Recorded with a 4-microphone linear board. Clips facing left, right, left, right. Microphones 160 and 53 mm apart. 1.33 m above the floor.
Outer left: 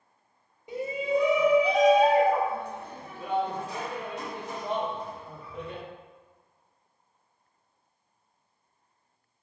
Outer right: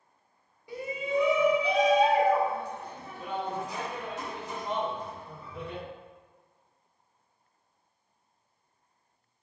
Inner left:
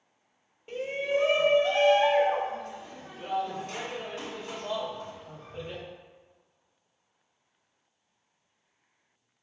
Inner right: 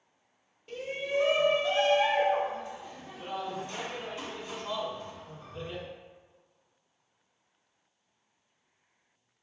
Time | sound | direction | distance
0.7 | a shout | 20° left (ahead or behind) | 0.7 m